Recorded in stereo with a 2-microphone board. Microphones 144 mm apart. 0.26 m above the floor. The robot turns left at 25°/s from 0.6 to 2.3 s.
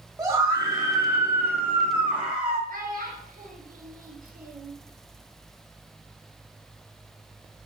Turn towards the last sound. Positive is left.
turn(degrees=-75)  # may be behind; listen again after turning